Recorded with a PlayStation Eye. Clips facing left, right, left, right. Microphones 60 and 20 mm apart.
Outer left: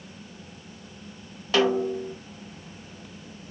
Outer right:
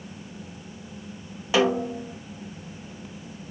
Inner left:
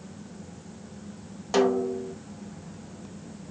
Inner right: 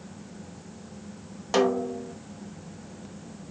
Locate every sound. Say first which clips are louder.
1.5 s a snare drum: even, inner left 1 dB; 10° right (ahead or behind), 0.6 m